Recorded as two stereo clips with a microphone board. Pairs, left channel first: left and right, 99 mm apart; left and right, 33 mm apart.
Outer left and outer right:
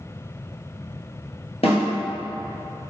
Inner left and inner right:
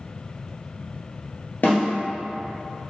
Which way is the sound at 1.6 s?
80° left.